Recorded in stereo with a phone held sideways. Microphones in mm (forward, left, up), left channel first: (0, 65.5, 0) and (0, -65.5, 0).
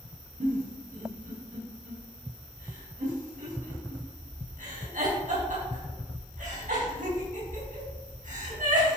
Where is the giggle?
85° right, 5 m.